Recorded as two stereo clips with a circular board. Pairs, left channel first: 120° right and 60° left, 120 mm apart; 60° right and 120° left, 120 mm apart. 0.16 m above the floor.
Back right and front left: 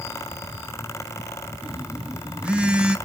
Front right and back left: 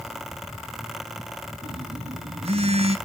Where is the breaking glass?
No breaking glass in this recording.